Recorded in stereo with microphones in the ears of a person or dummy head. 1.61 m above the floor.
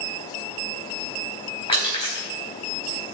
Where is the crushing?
25° left (ahead or behind), 4 m.